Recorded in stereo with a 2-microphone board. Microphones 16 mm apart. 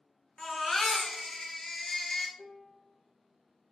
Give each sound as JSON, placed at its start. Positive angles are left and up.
{"t": 0.4, "sound": "a baby crying", "side_deg": 25, "distance_m": 0.6}
{"t": 2.4, "sound": "a piano", "side_deg": -40, "distance_m": 1.1}